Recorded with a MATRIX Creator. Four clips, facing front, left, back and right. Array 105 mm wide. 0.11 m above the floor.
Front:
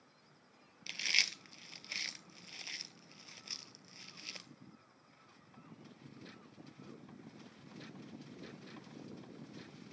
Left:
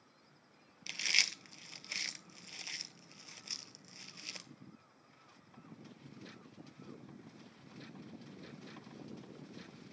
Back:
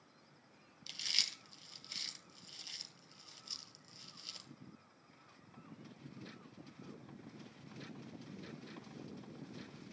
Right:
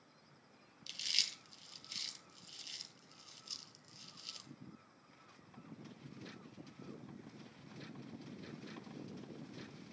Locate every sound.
0.9 s chewing: 50° left, 0.7 m